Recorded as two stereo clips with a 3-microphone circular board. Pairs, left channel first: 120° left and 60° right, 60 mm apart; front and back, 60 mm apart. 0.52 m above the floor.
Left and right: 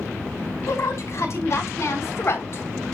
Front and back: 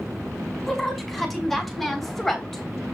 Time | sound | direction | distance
0.7 | a woman speaking | 85° left | 5.5 m